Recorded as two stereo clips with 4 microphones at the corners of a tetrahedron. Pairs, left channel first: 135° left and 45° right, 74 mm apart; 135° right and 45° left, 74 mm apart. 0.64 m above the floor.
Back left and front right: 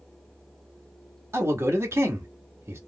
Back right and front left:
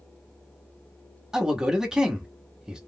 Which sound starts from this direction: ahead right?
A man speaking, at 1.3 s.